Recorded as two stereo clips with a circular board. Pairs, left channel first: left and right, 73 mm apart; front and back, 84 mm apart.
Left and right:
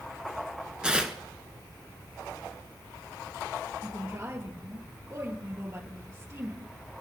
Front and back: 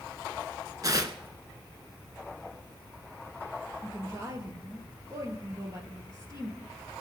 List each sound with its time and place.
0.8 s tearing paper: 165° right, 1.1 m
3.8 s a woman speaking: 135° right, 3.5 m